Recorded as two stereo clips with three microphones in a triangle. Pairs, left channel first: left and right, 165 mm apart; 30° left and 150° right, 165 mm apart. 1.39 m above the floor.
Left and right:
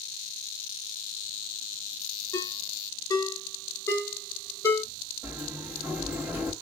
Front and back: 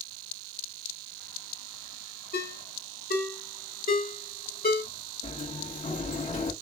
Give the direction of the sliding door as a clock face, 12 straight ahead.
12 o'clock.